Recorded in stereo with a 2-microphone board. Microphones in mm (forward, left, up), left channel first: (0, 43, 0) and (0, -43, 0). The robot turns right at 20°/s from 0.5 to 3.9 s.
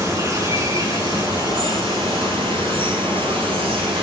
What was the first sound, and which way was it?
Running water, 140° right.